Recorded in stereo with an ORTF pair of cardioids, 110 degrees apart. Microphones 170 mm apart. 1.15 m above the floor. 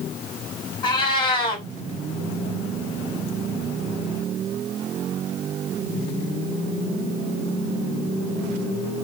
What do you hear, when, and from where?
0.8 s a cat meowing: 30° left, 1.9 m